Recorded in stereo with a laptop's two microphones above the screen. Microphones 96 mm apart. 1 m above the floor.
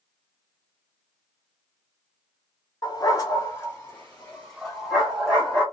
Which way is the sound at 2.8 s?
45° left (ahead or behind).